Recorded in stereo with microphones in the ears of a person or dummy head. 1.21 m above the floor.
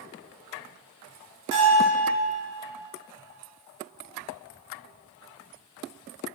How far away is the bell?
About 4 m.